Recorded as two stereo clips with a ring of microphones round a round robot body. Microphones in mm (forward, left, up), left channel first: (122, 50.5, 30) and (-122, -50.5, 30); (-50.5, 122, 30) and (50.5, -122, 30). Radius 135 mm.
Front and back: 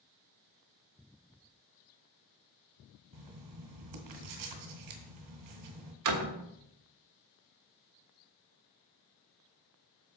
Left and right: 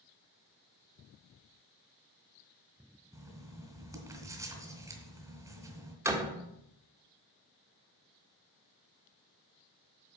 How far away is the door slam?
About 1.3 m.